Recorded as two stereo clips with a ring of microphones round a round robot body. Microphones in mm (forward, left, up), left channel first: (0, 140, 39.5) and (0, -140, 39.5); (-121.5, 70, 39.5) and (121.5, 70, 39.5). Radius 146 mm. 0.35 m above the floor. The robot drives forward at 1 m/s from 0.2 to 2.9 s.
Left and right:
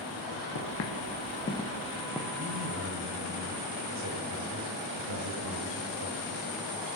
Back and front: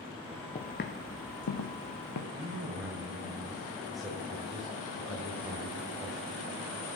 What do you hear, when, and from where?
0.6 s footsteps: 120° left, 1.6 m; by 2.2 s 175° right, 2 m
2.3 s a man speaking: 70° right, 1.9 m; by 6.5 s 90° right, 1.8 m